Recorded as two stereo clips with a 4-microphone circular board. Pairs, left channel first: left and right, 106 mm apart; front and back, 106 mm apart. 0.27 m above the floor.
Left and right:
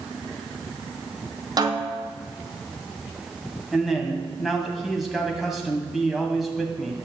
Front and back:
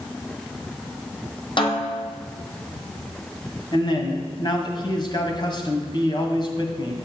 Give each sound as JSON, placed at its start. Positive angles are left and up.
{"t": 1.6, "sound": "a snare drum", "azimuth_deg": -40, "distance_m": 1.5}
{"t": 3.7, "sound": "a man speaking", "azimuth_deg": 0, "distance_m": 2.0}